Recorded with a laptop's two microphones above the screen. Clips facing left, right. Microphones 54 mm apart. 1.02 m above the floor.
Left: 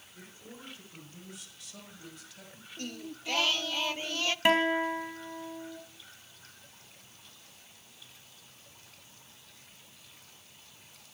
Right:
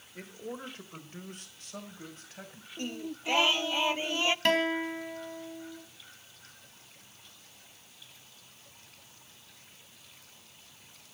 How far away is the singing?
About 0.5 m.